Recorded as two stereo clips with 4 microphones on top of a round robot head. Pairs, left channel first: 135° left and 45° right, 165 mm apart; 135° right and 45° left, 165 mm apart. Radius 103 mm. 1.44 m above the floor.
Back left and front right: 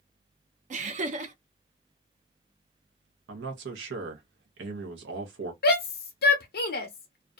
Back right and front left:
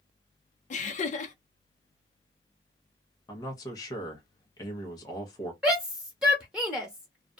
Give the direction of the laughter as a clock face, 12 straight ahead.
3 o'clock.